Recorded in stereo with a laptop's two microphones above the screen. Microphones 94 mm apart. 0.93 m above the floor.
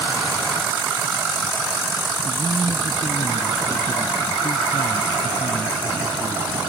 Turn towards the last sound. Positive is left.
turn(degrees=65)  # may be behind; listen again after turning